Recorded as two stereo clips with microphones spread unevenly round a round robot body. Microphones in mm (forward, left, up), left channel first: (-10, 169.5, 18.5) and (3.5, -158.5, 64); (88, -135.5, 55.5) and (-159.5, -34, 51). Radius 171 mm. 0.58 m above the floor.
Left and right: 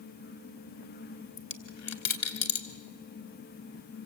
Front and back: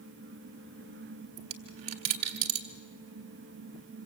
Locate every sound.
1.4 s a dropped coin: 145° left, 1.6 m